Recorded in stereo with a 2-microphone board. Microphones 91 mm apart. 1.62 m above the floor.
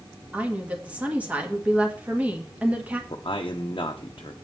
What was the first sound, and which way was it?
A woman speaking, 15° right (ahead or behind).